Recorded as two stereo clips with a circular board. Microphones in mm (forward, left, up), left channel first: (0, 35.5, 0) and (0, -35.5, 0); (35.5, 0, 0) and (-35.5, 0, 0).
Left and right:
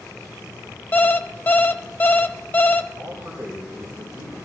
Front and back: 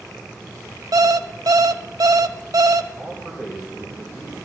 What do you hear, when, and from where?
0.9 s an alarm clock: 150° left, 0.5 m
3.0 s a man speaking: 50° right, 3 m